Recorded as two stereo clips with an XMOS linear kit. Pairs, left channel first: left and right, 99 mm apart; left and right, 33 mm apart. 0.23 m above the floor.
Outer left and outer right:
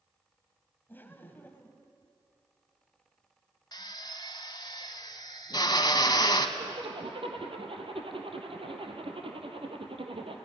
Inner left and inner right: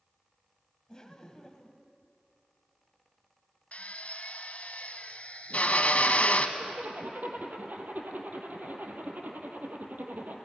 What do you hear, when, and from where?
0.9 s laughter: 20° left (ahead or behind), 1.5 m
3.7 s a drill: 45° left (ahead or behind), 1.2 m
6.6 s a zipper: 70° right (ahead or behind), 2.5 m